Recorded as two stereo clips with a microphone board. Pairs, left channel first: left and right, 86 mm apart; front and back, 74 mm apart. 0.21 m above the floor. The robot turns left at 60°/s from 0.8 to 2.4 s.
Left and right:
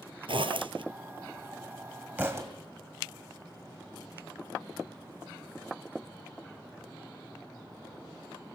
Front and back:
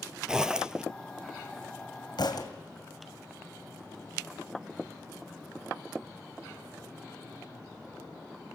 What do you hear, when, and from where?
0.3 s a zipper: 100° right, 0.8 m
2.2 s a thud: 20° right, 2 m; by 2.5 s 35° right, 2 m